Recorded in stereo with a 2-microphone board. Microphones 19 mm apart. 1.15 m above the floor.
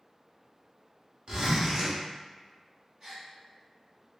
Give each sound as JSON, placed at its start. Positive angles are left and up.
{"t": 1.3, "sound": "a zipper", "side_deg": -45, "distance_m": 0.9}
{"t": 3.0, "sound": "a gasp", "side_deg": -40, "distance_m": 1.2}